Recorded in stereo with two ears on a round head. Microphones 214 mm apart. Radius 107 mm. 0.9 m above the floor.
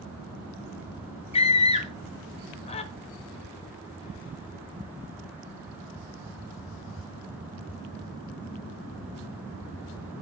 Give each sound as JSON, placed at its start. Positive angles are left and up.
{"t": 1.3, "sound": "a scream", "side_deg": 25, "distance_m": 0.8}